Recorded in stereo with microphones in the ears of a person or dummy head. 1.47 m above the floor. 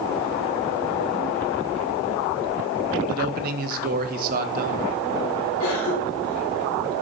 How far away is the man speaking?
About 0.9 m.